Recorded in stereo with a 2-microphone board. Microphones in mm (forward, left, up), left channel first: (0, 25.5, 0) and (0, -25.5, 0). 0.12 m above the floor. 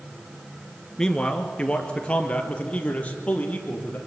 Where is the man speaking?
10° left (ahead or behind), 1.9 m; by 4.0 s 30° left (ahead or behind), 4.5 m.